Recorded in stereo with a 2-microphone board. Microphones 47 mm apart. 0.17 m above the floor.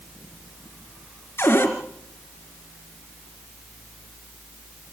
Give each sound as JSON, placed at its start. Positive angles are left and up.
{"t": 1.4, "sound": "a cupboard door", "side_deg": 55, "distance_m": 3.0}